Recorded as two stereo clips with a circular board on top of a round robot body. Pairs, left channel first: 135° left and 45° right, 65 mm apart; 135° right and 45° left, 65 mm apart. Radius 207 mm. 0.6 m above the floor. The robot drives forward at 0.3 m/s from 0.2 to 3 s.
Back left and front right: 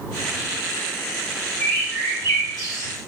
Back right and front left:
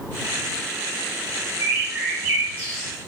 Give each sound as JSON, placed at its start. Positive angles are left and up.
{"t": 1.6, "sound": "a bird", "azimuth_deg": 100, "distance_m": 2.0}